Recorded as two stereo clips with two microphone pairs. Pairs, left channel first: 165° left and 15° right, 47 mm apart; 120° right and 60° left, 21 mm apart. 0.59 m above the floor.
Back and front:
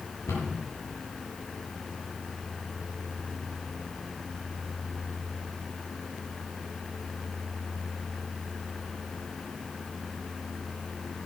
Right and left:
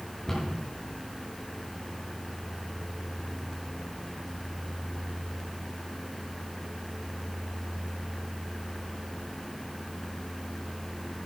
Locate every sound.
0.3 s a cupboard door: 170° left, 4 m